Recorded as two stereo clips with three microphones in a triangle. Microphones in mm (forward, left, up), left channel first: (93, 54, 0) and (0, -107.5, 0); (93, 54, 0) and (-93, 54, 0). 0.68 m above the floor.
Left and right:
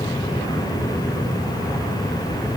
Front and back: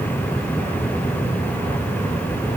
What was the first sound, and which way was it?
Only background noise.